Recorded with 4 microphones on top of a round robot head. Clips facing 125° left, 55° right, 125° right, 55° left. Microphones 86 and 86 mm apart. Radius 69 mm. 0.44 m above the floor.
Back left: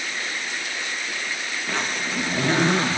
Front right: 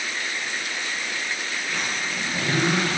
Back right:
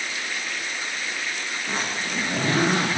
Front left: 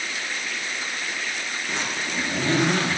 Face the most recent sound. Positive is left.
turn(degrees=-175)